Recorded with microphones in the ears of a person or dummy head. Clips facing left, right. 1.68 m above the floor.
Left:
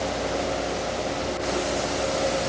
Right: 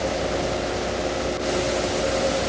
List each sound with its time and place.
Only background noise.